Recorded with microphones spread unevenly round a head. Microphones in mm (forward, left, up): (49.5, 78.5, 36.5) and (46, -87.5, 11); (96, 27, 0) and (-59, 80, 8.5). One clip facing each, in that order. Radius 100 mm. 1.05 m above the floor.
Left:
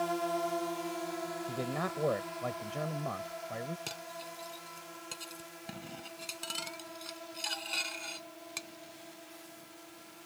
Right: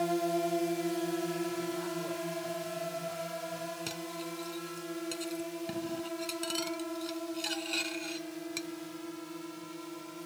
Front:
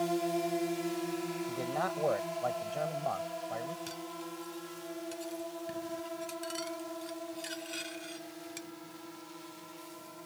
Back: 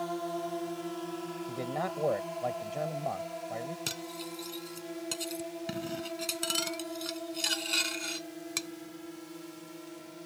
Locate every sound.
0.0 s a drone: 60° right; by 10.3 s 130° right
1.5 s a man speaking: 85° left
3.9 s cutlery clinking: straight behind